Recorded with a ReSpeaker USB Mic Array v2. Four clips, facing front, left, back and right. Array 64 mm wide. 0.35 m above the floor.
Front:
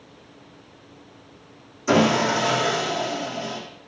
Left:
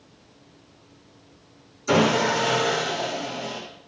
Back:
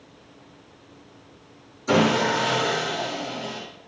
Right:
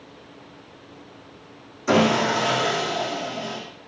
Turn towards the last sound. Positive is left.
turn(degrees=-65)